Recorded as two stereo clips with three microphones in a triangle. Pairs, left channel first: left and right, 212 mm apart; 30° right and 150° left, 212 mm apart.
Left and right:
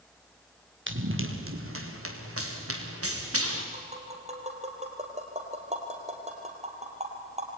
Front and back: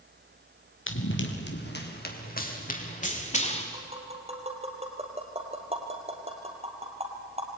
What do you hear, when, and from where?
0.9 s running footsteps: 60° right, 3.5 m; by 3.6 s 90° right, 5.5 m
3.7 s tapping: 150° right, 3.5 m